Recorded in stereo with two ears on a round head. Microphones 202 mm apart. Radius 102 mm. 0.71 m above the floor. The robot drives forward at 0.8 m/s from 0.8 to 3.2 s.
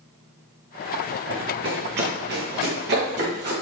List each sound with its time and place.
1.3 s running footsteps: 55° right (ahead or behind), 3 m; by 3.5 s 50° right (ahead or behind), 6 m